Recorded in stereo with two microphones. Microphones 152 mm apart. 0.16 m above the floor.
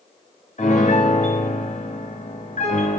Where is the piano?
55° left (ahead or behind), 3 m.